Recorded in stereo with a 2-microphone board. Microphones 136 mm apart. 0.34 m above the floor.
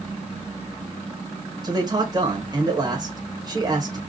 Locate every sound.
1.6 s a man speaking: 30° right (ahead or behind), 1.0 m